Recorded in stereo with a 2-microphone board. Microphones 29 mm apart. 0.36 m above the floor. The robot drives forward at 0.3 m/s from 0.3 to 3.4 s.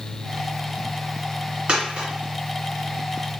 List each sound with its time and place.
1.7 s a dropped coin: 35° right (ahead or behind), 1.9 m; by 2.1 s 30° right (ahead or behind), 2.0 m